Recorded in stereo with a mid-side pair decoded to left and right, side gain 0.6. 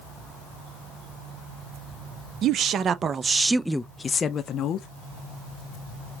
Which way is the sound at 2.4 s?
50° right.